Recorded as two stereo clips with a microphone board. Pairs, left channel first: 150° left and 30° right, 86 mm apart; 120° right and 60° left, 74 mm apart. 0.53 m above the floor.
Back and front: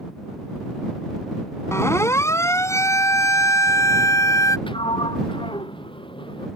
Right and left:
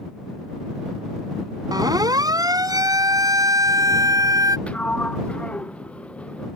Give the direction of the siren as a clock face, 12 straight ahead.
9 o'clock.